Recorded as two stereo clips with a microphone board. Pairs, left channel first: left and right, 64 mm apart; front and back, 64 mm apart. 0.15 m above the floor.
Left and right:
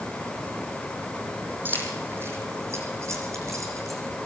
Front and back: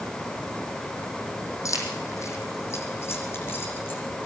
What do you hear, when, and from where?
1.6 s keys jangling: 30° right, 5 m; by 4.0 s 55° right, 7 m